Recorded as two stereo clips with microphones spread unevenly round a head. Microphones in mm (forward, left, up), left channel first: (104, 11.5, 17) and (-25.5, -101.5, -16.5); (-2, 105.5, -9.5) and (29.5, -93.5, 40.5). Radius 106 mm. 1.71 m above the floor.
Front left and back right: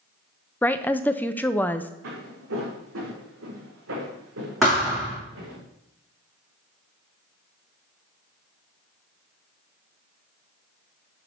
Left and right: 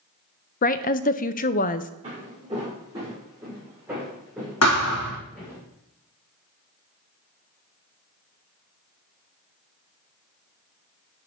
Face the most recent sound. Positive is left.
turn(degrees=130)